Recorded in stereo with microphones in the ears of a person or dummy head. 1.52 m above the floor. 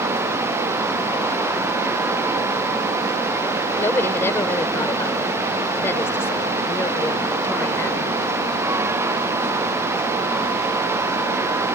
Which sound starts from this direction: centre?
A woman speaking, at 3.8 s.